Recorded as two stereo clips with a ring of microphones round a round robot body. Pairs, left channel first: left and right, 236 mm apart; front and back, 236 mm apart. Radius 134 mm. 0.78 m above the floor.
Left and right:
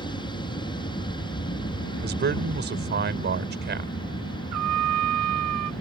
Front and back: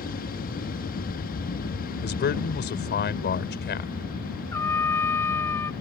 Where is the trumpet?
80° right.